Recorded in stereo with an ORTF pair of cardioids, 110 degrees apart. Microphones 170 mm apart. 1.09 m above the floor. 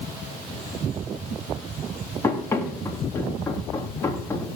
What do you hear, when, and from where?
2.2 s running footsteps: 15° left, 4.5 m